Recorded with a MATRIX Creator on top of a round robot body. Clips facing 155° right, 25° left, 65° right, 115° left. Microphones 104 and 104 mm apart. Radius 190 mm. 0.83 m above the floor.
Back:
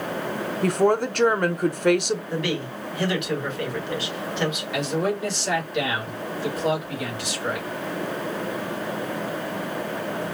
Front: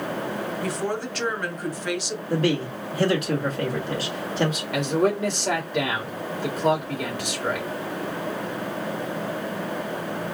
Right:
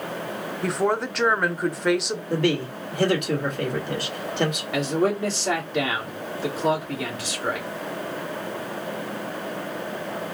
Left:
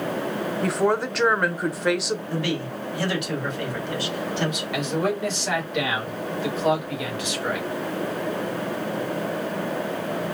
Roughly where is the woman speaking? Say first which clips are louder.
Back 11 dB, left 1 dB; behind.